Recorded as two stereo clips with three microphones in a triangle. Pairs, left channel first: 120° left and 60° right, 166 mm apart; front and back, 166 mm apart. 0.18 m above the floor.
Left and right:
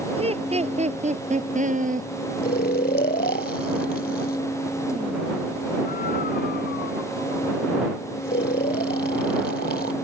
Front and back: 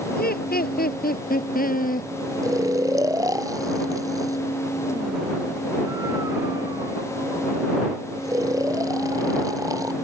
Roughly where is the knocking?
I don't hear knocking.